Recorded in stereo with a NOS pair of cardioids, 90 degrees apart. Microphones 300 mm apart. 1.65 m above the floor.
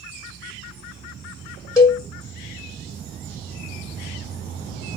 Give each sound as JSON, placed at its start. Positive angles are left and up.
{"t": 1.8, "sound": "a cowbell", "azimuth_deg": 10, "distance_m": 1.1}